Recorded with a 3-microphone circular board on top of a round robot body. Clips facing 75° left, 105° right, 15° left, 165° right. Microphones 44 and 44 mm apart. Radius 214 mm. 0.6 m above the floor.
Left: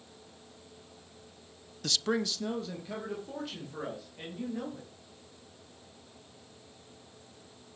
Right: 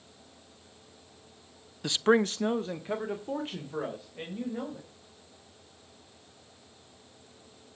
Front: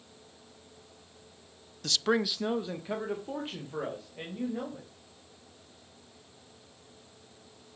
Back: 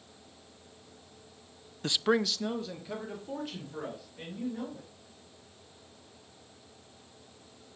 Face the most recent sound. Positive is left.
turn(degrees=-45)